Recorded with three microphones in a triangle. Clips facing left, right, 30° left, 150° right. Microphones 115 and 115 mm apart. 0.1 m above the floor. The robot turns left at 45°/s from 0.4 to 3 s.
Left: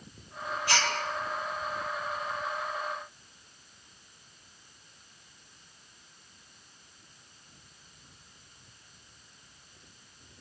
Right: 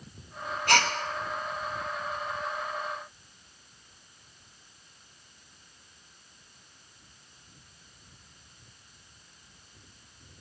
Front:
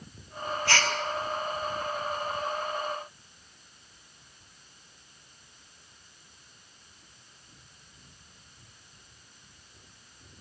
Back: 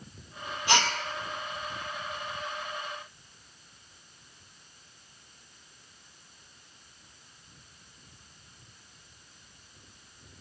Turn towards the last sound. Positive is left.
turn(degrees=175)